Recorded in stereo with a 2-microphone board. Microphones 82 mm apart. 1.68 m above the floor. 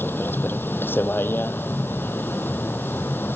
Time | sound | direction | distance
0.0 | a vehicle | 25° left (ahead or behind) | ?